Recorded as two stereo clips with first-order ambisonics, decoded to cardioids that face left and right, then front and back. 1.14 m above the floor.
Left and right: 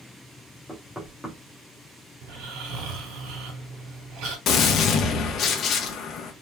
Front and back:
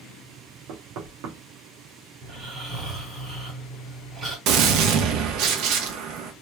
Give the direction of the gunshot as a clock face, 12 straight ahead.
7 o'clock.